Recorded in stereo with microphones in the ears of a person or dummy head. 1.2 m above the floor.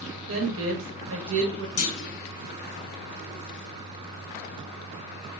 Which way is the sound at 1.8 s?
70° left (ahead or behind).